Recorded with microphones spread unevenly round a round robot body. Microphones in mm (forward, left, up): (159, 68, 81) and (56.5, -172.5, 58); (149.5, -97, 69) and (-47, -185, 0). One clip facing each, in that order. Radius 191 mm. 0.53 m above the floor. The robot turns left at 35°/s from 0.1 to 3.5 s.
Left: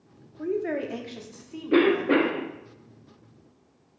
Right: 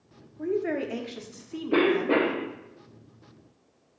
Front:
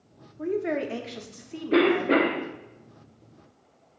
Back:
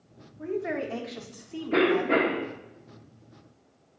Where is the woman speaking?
20° right, 0.9 m; by 2.2 s 80° right, 0.9 m.